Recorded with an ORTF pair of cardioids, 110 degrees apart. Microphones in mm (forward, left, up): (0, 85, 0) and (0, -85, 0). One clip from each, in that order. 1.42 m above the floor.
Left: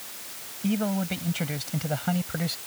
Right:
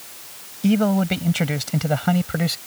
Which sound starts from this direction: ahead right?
A man speaking, at 0.6 s.